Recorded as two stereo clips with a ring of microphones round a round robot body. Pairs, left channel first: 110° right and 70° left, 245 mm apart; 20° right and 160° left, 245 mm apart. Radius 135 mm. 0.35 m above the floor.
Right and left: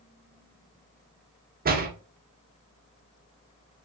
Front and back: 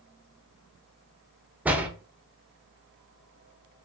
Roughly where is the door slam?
Left.